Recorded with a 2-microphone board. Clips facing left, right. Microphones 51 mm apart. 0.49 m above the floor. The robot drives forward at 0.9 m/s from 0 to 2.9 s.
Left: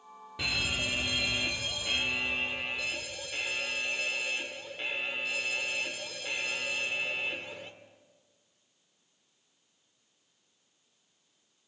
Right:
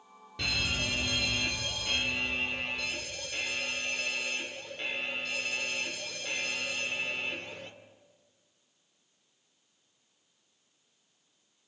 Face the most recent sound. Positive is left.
turn(degrees=10)  # may be behind; listen again after turning